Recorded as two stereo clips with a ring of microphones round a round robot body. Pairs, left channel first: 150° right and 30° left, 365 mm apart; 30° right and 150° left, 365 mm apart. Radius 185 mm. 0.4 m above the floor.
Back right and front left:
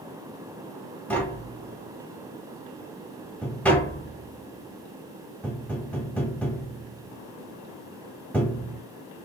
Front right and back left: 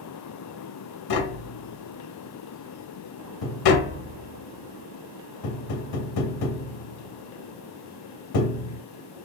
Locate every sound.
1.1 s tapping: 65° right, 0.7 m